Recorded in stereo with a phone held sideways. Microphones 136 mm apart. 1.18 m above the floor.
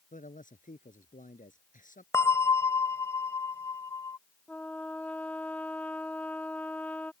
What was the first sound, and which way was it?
A man speaking, 75° left (ahead or behind).